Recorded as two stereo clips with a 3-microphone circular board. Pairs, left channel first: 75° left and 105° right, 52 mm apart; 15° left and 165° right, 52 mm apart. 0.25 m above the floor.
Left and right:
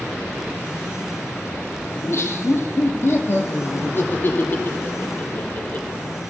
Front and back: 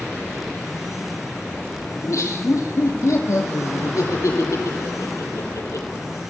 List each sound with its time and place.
1.9 s laughter: 40° left, 7 m; by 5.9 s 15° left, 6 m